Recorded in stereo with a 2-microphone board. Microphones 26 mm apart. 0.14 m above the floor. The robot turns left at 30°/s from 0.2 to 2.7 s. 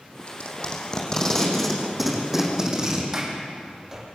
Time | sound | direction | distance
0.3 | tape being pulled | 50° left (ahead or behind) | 5.5 m
3.1 | a sliding door | 15° right (ahead or behind) | 5 m